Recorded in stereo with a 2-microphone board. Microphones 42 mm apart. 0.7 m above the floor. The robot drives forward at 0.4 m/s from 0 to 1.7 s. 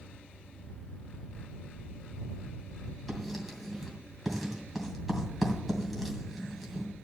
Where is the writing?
5° right (ahead or behind), 2.5 m.